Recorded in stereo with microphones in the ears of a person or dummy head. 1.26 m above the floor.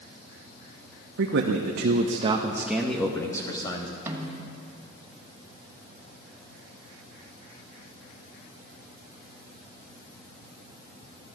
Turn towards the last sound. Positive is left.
turn(degrees=-15)  # may be behind; listen again after turning